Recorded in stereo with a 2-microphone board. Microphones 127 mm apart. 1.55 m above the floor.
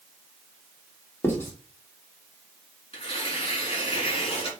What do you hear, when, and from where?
1.2 s writing: 20° left (ahead or behind), 3 m
2.9 s tearing paper: 45° left (ahead or behind), 4 m